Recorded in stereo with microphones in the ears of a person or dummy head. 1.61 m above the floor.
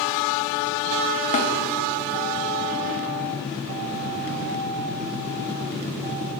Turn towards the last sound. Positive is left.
turn(degrees=35)  # may be behind; listen again after turning